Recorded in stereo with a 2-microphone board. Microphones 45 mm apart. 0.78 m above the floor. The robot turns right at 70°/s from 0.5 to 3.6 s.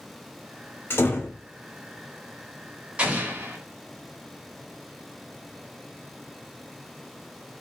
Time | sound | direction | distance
0.9 | a door slam | 55° left | 1.4 m
3.0 | an explosion | 155° right | 1.9 m